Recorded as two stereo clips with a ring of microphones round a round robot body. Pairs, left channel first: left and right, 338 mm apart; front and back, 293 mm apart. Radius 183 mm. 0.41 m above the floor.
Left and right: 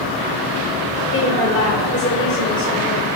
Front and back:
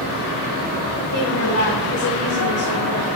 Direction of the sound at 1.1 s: 10° left.